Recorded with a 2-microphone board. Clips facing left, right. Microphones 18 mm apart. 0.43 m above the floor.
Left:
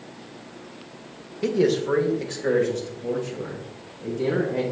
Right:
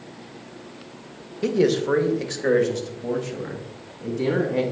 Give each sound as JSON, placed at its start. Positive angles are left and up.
{"t": 1.4, "sound": "a man speaking", "side_deg": -5, "distance_m": 0.8}